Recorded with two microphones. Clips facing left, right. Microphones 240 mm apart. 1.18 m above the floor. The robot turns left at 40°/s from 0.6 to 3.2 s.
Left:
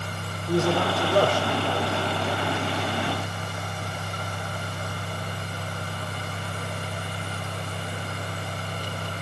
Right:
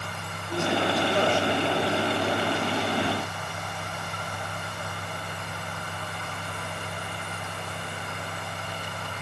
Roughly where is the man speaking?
Left.